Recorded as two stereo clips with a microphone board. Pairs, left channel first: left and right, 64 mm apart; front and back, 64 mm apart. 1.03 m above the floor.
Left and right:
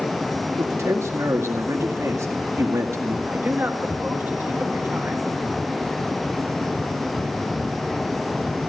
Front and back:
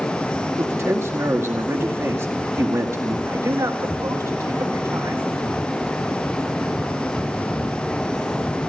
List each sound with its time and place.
0.6 s a man speaking: 130° right, 1.9 m
3.3 s a man speaking: 145° right, 2.0 m